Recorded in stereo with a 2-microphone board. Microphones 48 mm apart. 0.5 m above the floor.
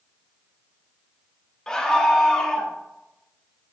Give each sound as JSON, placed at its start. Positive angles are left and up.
{"t": 1.7, "sound": "a scream", "side_deg": 15, "distance_m": 0.7}